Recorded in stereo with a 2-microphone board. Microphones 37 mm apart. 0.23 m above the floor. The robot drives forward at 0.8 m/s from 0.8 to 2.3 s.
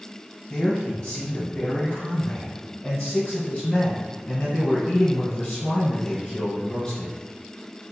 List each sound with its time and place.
0.5 s a man speaking: 20° left (ahead or behind), 1.0 m; by 7.1 s 15° left (ahead or behind), 1.4 m